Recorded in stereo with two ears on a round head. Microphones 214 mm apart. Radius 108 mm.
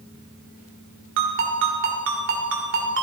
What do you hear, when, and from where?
1.2 s a ringtone: 55° right (ahead or behind), 2 m